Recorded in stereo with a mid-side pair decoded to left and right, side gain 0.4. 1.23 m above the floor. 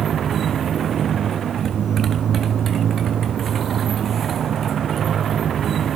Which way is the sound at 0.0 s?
60° right.